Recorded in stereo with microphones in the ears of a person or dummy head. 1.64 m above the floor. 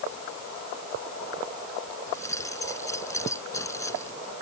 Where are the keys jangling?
15° left (ahead or behind).